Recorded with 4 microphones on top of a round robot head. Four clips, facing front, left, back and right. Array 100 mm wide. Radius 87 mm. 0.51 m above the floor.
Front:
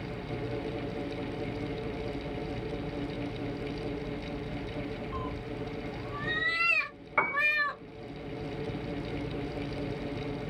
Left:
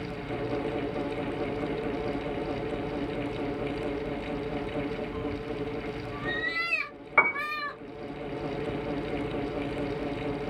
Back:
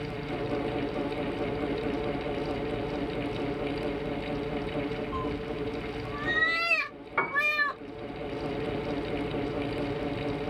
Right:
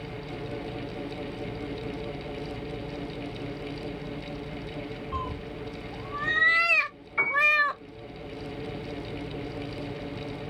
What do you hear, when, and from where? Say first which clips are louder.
5.1 s a cat meowing: left 2 dB, back 5 dB; 100° right, 0.7 m
7.2 s a piano: left 2 dB, back 1 dB; 95° left, 0.9 m